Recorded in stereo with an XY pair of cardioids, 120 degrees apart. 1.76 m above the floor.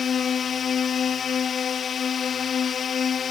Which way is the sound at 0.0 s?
45° left.